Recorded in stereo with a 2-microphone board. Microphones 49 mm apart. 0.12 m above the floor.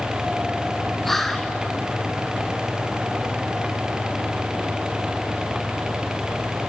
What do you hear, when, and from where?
1.0 s whispering: 5° left (ahead or behind), 1.2 m